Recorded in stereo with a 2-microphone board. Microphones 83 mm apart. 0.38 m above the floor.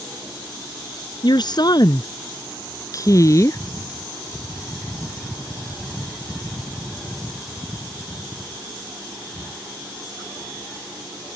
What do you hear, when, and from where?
1.2 s a woman speaking: 60° left (ahead or behind); by 3.6 s 35° left (ahead or behind)